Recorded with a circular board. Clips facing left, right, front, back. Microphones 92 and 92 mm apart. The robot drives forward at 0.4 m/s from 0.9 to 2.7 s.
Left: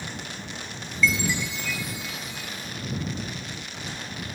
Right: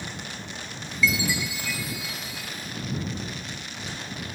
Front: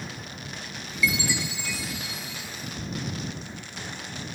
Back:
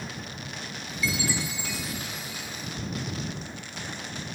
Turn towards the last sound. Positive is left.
turn(degrees=-175)